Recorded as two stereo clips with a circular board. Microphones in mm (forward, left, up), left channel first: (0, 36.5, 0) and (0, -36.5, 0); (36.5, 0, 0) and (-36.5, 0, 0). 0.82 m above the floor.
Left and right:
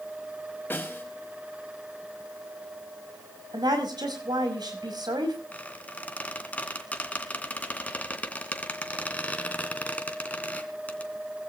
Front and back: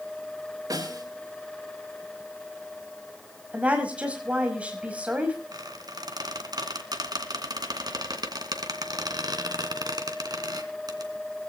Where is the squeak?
160° left, 2 m.